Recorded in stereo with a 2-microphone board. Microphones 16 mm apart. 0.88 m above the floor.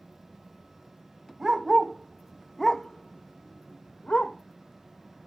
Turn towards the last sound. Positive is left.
turn(degrees=80)